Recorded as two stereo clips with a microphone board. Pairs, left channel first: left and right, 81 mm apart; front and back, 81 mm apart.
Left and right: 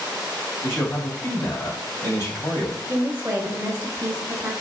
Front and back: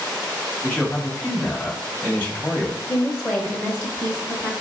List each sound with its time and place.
0.6 s a man speaking: 55° left, 1.9 m
2.9 s a woman speaking: 55° right, 1.1 m